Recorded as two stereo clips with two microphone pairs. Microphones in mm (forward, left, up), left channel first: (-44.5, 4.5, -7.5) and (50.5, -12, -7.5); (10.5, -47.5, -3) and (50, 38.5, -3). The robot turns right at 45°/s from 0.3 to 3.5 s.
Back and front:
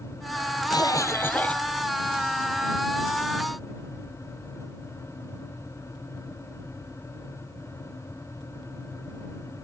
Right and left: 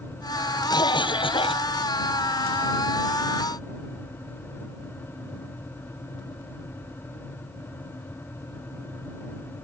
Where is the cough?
150° right; by 1.7 s 110° right.